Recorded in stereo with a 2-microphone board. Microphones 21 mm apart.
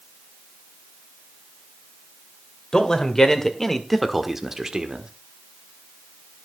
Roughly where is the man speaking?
Left.